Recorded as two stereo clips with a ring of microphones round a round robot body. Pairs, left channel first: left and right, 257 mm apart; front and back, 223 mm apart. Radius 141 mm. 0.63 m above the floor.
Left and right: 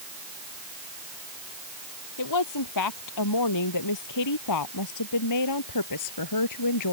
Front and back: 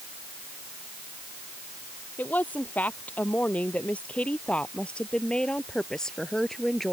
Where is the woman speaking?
85° left; by 6.9 s 90° left.